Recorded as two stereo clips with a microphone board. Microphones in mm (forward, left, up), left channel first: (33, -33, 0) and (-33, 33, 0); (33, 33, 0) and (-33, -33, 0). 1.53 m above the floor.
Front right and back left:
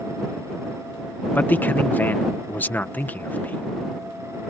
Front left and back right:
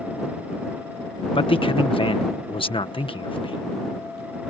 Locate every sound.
1.4 s a man speaking: 25° left